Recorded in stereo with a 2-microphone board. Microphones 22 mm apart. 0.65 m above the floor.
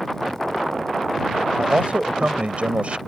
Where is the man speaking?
65° right (ahead or behind).